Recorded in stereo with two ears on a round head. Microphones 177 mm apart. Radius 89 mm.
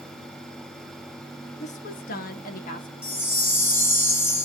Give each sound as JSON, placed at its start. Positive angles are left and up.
{"t": 1.6, "sound": "a woman speaking", "side_deg": 30, "distance_m": 1.1}
{"t": 3.0, "sound": "a chime", "side_deg": 10, "distance_m": 1.3}